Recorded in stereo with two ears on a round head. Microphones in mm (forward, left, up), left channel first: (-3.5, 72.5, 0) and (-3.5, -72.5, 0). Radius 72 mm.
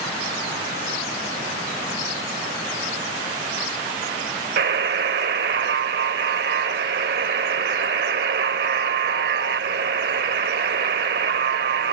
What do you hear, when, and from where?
4.6 s a buzzer: 65° right (ahead or behind)